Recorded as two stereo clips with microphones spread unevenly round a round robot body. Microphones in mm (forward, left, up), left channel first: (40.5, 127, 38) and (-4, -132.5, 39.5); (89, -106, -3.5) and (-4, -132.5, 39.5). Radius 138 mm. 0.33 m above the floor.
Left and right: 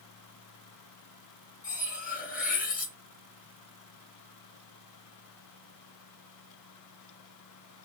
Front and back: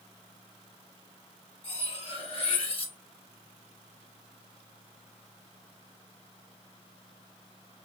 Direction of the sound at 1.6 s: 20° left.